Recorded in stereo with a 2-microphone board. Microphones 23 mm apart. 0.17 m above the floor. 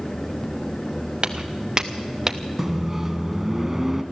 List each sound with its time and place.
1.2 s footsteps: 35° right (ahead or behind), 1.7 m; by 2.4 s 10° right (ahead or behind), 1.3 m
2.6 s a microwave: 20° right (ahead or behind), 1.2 m